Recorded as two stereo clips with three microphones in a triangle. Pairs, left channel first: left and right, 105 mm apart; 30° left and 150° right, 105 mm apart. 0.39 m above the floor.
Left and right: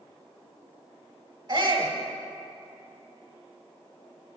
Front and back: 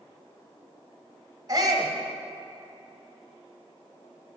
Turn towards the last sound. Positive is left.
turn(degrees=-130)